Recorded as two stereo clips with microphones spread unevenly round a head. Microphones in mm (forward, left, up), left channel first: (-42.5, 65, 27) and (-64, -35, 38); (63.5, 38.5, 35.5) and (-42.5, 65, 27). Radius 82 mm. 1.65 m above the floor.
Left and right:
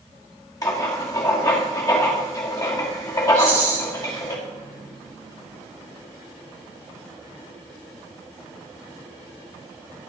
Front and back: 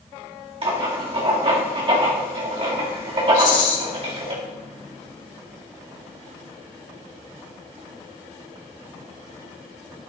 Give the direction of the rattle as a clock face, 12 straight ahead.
1 o'clock.